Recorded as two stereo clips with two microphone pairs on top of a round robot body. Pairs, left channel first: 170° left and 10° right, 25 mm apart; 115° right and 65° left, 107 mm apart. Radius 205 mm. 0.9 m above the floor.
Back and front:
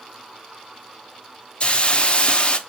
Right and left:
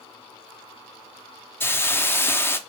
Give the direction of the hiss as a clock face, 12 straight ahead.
6 o'clock.